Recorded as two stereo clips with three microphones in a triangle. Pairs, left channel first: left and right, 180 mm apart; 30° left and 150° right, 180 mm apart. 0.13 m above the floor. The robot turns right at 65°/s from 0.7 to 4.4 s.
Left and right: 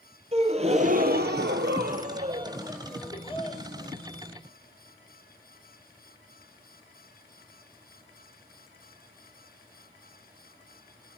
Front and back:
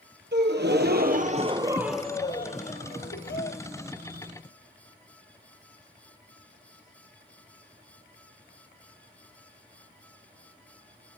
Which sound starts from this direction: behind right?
A gasp, at 0.3 s.